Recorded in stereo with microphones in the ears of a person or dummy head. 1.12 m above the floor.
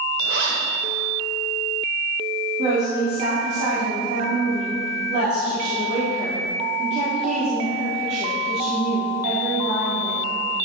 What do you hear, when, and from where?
0.2 s a zipper: 80° right, 2 m
2.6 s a woman speaking: 40° right (ahead or behind), 3 m